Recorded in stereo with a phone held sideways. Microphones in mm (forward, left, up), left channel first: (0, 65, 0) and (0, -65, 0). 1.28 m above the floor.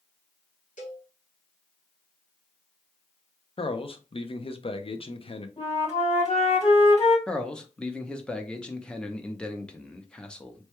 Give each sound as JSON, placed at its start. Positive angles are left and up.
{"t": 0.8, "sound": "a cowbell", "side_deg": 70, "distance_m": 1.9}
{"t": 3.6, "sound": "a man speaking", "side_deg": 45, "distance_m": 0.5}
{"t": 5.6, "sound": "a flute", "side_deg": 50, "distance_m": 2.0}
{"t": 7.3, "sound": "a man speaking", "side_deg": 5, "distance_m": 0.6}